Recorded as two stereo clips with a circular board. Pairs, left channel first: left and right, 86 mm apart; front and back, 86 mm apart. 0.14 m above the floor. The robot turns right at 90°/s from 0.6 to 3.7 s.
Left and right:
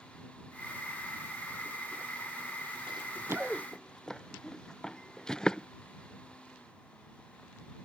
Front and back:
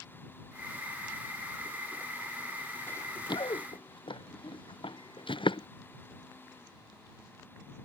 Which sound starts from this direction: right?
Running footsteps, at 2.9 s.